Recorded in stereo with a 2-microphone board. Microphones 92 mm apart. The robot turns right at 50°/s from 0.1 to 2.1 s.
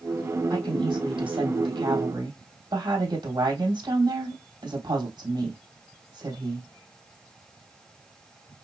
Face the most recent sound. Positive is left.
turn(degrees=-55)